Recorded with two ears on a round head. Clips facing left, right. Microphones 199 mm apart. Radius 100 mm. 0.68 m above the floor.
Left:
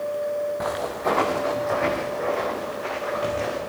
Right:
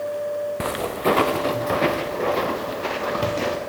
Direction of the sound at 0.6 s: 35° right (ahead or behind).